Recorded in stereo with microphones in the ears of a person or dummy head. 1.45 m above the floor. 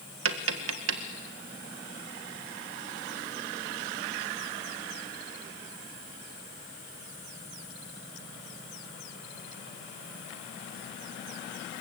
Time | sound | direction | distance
0.2 | tapping | 75° right (ahead or behind) | 1.6 m